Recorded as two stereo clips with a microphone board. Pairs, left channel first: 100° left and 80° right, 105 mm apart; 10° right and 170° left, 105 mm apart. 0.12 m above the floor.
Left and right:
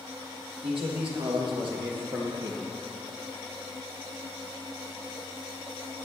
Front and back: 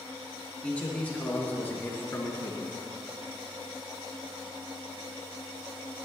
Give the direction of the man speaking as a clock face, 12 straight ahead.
3 o'clock.